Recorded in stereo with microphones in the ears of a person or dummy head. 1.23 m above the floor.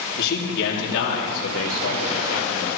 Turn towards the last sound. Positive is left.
turn(degrees=85)